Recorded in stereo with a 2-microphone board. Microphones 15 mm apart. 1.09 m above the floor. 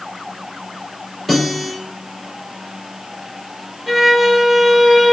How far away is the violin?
About 4 m.